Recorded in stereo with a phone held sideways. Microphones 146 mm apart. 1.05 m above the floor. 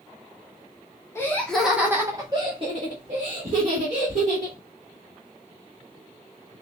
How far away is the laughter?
About 0.8 m.